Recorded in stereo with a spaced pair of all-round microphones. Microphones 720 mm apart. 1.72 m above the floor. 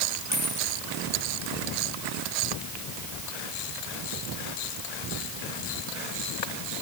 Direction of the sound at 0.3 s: 40° left (ahead or behind).